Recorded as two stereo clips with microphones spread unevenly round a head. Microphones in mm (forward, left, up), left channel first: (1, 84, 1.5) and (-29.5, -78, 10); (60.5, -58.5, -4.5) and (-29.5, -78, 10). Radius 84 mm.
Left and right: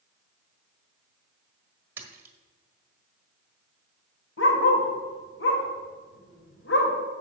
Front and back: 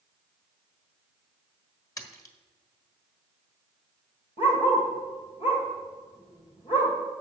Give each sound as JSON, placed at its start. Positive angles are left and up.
{"t": 2.0, "sound": "a splash", "azimuth_deg": -35, "distance_m": 1.5}
{"t": 4.4, "sound": "a dog barking", "azimuth_deg": 70, "distance_m": 2.5}